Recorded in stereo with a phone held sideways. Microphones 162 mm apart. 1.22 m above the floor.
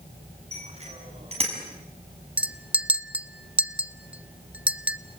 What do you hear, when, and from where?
0.5 s a bicycle bell: 40° right (ahead or behind), 8 m
2.4 s a clink: 10° right (ahead or behind), 0.7 m